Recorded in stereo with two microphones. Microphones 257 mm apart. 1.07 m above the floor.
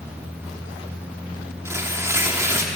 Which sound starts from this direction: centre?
Tearing paper, at 1.6 s.